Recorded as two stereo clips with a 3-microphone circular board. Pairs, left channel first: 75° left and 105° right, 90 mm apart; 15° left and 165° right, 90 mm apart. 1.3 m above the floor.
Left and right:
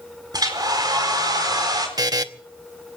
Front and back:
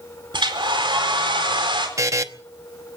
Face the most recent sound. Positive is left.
turn(degrees=-130)